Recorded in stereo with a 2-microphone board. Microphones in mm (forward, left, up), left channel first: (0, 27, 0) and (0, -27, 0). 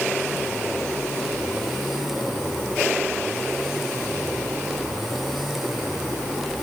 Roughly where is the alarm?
No alarm in this recording.